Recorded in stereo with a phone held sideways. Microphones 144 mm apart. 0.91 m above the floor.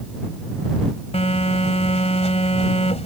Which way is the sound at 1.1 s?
55° left (ahead or behind).